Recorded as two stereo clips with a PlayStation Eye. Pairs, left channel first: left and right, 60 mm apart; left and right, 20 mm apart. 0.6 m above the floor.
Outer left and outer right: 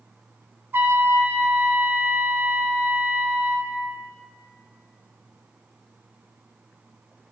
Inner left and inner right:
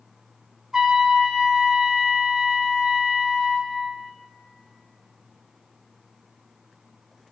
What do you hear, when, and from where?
0.7 s a trumpet: 35° right (ahead or behind), 0.6 m